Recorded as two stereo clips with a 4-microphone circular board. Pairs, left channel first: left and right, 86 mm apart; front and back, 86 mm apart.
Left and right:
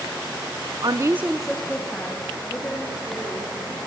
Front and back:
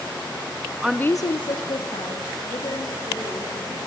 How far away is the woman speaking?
About 0.5 m.